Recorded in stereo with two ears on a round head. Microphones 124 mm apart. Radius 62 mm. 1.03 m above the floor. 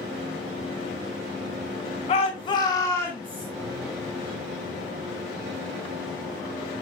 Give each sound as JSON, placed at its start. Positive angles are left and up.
{"t": 2.1, "sound": "a shout", "side_deg": 50, "distance_m": 1.3}